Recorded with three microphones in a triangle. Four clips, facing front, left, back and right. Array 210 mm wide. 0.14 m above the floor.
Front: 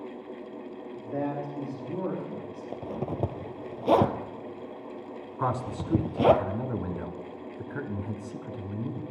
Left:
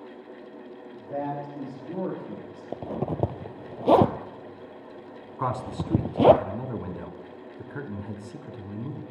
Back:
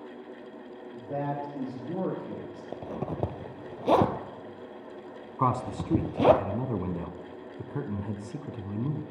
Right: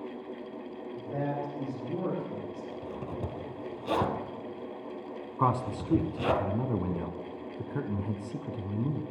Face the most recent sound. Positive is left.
turn(degrees=-145)